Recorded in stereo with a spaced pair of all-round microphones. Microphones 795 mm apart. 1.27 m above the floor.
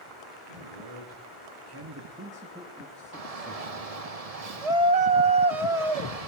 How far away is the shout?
About 1.3 m.